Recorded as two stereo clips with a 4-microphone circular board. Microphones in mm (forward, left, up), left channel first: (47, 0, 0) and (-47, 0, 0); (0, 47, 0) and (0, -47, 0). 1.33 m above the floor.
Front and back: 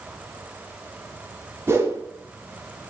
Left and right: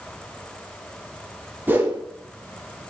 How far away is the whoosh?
About 0.6 m.